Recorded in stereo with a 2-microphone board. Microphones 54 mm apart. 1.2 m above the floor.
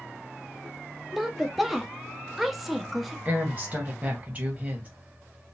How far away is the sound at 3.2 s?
About 1.2 m.